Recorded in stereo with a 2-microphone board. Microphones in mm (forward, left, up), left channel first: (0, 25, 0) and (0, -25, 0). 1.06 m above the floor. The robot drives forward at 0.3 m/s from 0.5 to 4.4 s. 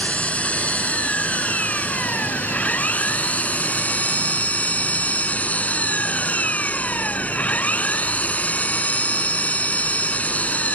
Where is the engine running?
25° left (ahead or behind); by 10.8 s 30° left (ahead or behind).